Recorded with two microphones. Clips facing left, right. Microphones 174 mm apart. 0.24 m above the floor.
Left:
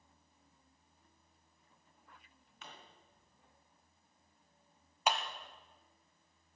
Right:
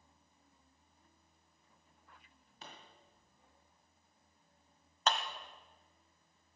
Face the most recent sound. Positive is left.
turn(degrees=10)  # may be behind; listen again after turning